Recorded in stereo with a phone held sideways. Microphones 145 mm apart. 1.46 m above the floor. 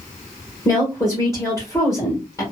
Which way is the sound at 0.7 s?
20° left (ahead or behind).